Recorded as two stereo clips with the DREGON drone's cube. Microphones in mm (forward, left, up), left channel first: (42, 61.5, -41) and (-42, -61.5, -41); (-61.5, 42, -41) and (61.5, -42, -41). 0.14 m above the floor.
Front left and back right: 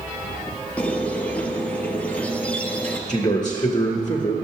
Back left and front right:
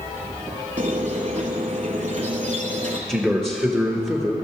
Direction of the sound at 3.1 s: 45° left.